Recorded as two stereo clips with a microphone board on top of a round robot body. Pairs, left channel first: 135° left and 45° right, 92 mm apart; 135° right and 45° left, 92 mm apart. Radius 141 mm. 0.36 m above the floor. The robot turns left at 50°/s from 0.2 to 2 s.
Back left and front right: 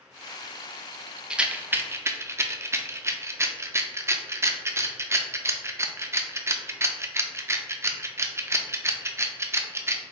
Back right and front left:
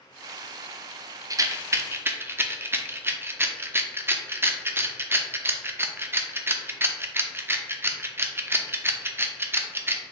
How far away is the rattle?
About 0.6 m.